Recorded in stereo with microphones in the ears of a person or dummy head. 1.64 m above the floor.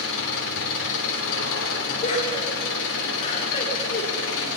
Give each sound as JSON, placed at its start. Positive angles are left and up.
{"t": 0.0, "sound": "an engine running", "side_deg": 75, "distance_m": 3.5}
{"t": 2.0, "sound": "laughter", "side_deg": 40, "distance_m": 4.5}